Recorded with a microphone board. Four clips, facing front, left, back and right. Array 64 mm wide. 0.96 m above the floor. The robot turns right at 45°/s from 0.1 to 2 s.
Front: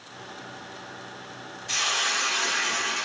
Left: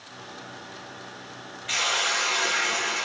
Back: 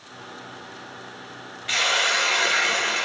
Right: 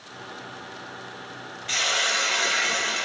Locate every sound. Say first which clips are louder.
1.7 s a hiss: right 1 dB, back 5 dB; 175° left, 1.1 m; by 3.1 s 170° right, 1.1 m